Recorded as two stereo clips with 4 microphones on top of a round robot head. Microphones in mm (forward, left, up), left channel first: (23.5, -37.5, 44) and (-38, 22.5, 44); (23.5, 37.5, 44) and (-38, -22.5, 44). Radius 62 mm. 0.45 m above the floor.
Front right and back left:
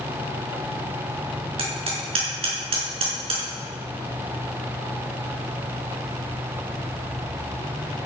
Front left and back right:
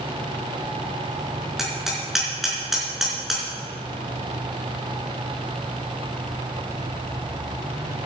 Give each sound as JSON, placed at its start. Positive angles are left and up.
{"t": 1.6, "sound": "hammering", "azimuth_deg": 140, "distance_m": 5.0}